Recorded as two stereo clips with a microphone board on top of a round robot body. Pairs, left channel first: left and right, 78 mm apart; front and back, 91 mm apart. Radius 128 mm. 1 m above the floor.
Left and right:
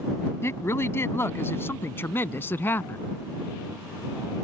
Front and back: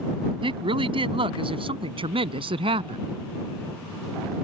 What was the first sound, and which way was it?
A woman speaking, 150° left.